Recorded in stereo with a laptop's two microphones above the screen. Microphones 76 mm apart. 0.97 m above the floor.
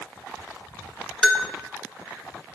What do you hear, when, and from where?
1.2 s a bell: 5° right (ahead or behind), 1.5 m